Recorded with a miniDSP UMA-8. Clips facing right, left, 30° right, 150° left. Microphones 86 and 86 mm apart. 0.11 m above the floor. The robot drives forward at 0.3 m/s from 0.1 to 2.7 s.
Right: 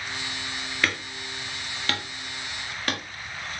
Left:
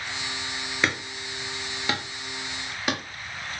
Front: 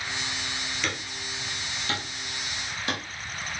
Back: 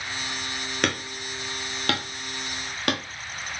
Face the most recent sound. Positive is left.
turn(degrees=170)